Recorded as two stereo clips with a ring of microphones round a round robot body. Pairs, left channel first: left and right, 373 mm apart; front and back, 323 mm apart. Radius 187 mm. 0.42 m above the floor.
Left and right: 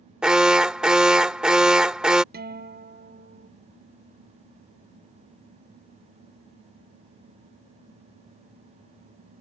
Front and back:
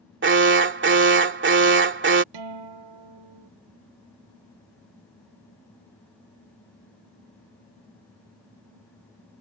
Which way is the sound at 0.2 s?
175° right.